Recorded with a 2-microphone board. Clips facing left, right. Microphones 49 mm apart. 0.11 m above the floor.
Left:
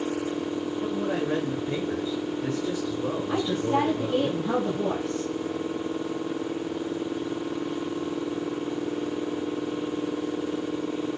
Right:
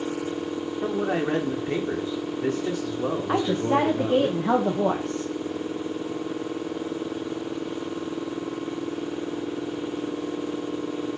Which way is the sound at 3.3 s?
80° right.